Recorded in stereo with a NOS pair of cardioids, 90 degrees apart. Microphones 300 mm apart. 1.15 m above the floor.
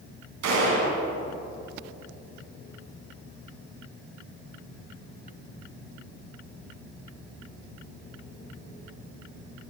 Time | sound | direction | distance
0.4 | a gunshot | 65° right | 3.5 m